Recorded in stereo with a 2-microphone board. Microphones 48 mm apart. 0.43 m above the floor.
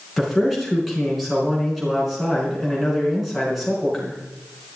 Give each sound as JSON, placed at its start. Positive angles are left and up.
{"t": 0.2, "sound": "a man speaking", "side_deg": 0, "distance_m": 5.0}